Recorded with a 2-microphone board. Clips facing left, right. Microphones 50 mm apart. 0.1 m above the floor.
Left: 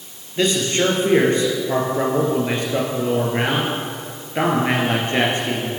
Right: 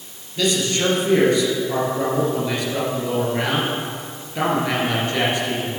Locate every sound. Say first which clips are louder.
0.4 s a man speaking: left 2 dB; 35° left (ahead or behind), 2 m